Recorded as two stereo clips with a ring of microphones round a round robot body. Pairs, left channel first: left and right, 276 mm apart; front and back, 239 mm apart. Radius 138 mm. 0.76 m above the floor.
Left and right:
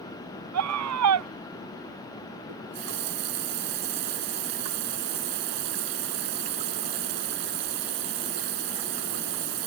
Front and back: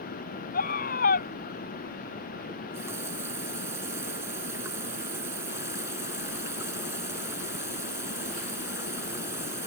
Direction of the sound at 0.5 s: 60° right.